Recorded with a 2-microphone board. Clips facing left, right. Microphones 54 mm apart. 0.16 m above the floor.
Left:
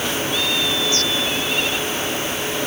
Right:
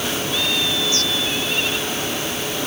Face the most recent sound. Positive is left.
No sound to turn to.